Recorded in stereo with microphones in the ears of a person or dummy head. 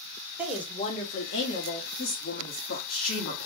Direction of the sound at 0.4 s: 10° right (ahead or behind).